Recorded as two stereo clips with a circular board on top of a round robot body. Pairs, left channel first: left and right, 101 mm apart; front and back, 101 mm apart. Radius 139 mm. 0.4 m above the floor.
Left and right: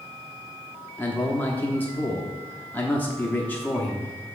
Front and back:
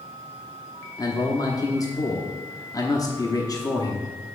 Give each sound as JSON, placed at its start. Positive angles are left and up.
{"t": 1.0, "sound": "a man speaking", "azimuth_deg": 25, "distance_m": 1.0}